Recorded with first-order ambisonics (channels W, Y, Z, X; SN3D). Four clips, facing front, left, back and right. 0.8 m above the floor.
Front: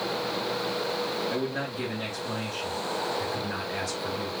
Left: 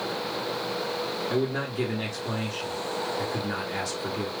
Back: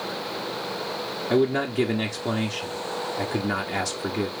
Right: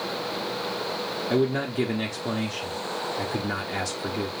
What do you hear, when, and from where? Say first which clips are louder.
1.3 s a man speaking: right 6 dB, back 8 dB; 160° right, 1.3 m